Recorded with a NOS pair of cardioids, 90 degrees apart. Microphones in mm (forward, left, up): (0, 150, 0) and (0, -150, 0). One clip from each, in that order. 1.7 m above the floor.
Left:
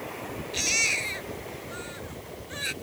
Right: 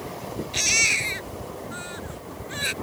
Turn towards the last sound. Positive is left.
turn(degrees=-35)